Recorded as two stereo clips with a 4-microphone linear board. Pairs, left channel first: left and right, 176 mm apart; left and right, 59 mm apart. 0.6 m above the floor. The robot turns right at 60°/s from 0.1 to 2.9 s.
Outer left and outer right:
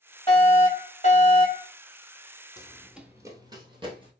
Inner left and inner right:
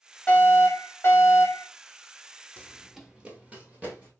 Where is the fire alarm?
55° left, 2.5 m; by 1.7 s 140° left, 2.5 m.